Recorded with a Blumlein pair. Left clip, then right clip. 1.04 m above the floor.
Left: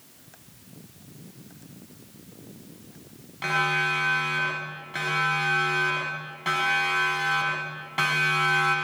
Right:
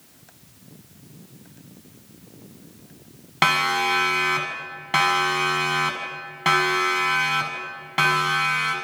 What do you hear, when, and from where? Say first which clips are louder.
3.4 s a siren: right 5 dB; 40° right, 6.5 m; by 8.8 s 75° right, 6.5 m